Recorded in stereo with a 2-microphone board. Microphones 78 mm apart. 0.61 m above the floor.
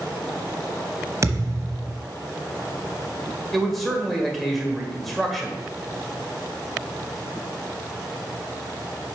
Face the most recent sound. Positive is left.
turn(degrees=0)  # may be behind; listen again after turning